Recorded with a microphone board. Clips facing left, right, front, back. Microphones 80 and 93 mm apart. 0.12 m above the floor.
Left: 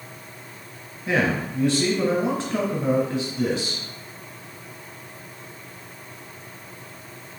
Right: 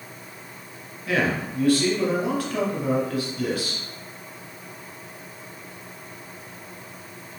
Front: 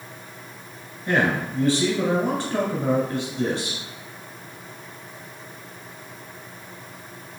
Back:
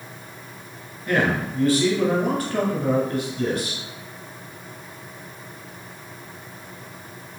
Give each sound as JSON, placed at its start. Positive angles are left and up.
{"t": 1.1, "sound": "a man speaking", "azimuth_deg": 45, "distance_m": 1.4}